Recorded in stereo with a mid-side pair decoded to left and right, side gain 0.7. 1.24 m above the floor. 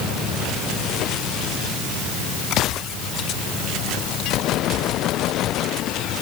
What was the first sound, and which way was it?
Only background noise.